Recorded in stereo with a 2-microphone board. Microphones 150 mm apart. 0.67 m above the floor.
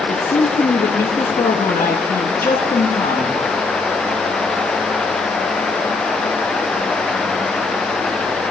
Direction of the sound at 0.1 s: 70° left (ahead or behind).